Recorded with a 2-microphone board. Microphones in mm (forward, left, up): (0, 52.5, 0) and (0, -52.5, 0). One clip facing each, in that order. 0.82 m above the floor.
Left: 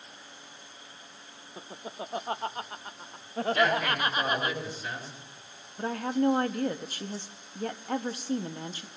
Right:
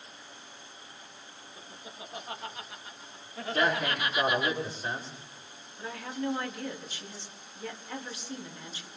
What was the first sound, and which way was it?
Laughter, 40° left (ahead or behind).